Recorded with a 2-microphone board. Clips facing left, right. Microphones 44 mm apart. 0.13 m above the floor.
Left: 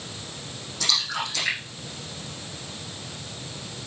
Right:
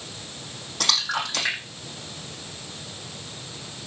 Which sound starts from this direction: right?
A splash, at 0.8 s.